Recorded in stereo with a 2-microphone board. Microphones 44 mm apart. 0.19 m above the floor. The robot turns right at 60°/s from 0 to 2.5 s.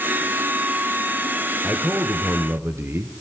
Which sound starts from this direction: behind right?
A man speaking, at 1.6 s.